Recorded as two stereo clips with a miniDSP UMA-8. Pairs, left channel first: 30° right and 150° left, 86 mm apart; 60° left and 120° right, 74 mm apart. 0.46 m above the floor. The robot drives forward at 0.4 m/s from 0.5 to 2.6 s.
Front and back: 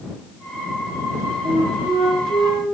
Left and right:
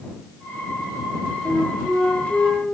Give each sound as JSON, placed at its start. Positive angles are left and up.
{"t": 1.4, "sound": "a flute", "azimuth_deg": 165, "distance_m": 3.0}